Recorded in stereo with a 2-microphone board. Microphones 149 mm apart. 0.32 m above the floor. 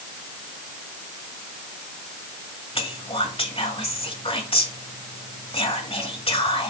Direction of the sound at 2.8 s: 40° left (ahead or behind).